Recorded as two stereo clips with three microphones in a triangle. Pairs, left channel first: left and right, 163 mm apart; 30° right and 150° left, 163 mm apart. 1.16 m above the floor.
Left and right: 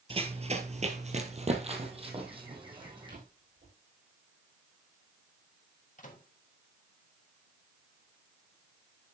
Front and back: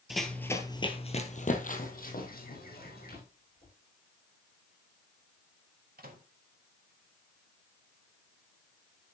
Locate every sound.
0.1 s running footsteps: 125° right, 1.5 m; by 3.2 s 30° right, 3.5 m
3.1 s a drawer: 55° right, 7.5 m
6.0 s a microwave: 130° left, 1.8 m